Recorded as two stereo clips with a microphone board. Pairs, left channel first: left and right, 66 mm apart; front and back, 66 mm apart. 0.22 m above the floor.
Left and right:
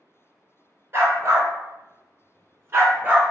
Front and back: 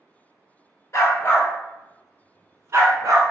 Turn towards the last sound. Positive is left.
turn(degrees=-155)